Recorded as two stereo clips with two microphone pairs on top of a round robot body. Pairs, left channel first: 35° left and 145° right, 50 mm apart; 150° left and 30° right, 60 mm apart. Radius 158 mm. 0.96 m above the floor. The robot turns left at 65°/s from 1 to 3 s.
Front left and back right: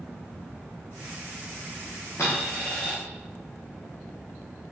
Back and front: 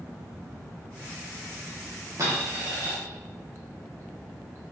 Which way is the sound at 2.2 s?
5° left.